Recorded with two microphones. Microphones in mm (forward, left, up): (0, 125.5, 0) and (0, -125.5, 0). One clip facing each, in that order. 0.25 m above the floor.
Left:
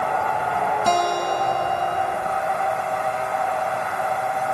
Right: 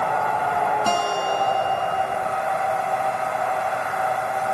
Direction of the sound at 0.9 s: 5° right (ahead or behind).